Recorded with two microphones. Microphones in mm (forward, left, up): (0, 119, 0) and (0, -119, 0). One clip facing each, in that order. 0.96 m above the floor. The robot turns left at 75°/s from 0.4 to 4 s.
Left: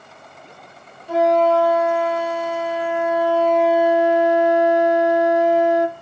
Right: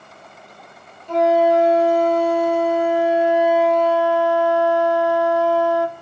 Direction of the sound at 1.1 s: 15° left.